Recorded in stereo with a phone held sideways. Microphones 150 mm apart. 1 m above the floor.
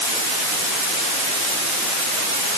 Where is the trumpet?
No trumpet in this recording.